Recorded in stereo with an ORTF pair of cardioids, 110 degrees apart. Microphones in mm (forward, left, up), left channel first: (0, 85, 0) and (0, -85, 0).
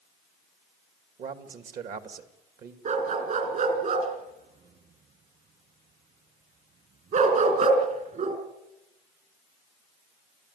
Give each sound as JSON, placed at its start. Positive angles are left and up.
{"t": 1.2, "sound": "a man speaking", "azimuth_deg": -55, "distance_m": 2.5}
{"t": 2.9, "sound": "a dog barking", "azimuth_deg": -50, "distance_m": 4.5}